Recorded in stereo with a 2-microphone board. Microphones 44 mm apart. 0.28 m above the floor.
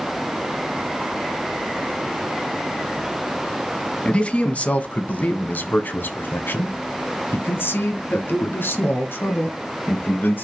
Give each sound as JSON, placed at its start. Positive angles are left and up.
{"t": 4.0, "sound": "a man speaking", "side_deg": 30, "distance_m": 2.0}